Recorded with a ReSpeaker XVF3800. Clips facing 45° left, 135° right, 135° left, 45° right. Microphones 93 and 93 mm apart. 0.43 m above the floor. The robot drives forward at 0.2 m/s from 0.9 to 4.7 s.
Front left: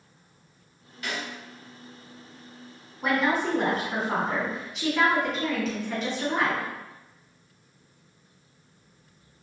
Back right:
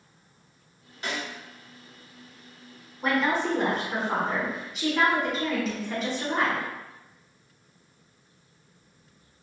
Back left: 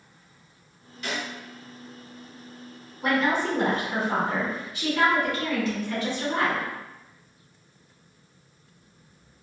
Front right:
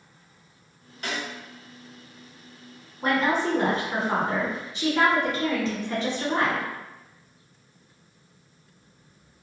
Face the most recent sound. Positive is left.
turn(degrees=-50)